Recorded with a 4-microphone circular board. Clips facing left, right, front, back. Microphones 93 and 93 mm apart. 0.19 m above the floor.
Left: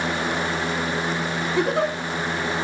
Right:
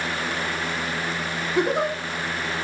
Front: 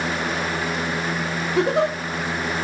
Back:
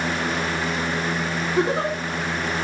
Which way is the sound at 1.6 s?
10° right.